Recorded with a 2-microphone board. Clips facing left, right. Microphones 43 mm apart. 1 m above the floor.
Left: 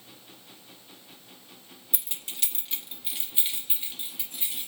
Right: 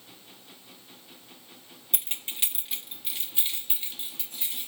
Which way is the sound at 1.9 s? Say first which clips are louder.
Right 3 dB; 60° right (ahead or behind).